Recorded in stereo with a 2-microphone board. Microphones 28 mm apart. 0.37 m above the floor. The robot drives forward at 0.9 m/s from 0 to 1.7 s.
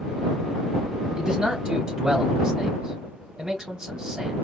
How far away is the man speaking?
About 1.2 m.